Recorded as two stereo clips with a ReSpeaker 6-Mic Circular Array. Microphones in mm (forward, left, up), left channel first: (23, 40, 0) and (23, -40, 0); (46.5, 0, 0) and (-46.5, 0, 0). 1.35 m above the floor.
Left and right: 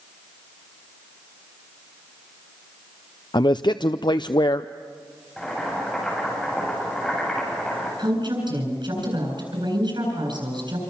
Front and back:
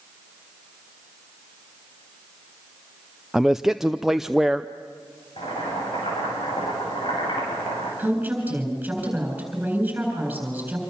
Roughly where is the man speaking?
Left.